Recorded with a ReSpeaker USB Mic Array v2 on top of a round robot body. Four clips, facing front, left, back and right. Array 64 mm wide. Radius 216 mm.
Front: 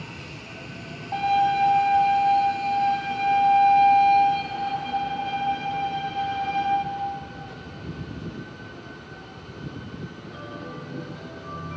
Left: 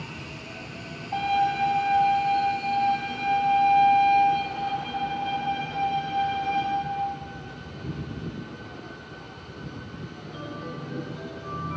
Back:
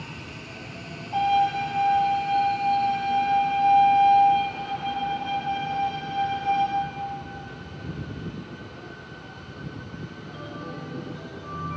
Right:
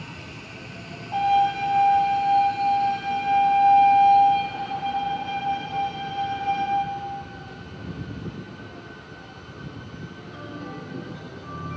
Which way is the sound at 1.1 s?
15° right.